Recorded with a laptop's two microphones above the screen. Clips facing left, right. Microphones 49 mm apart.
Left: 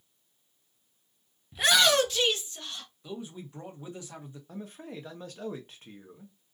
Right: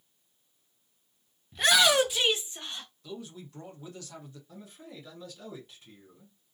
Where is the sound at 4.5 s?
55° left (ahead or behind), 1.0 m.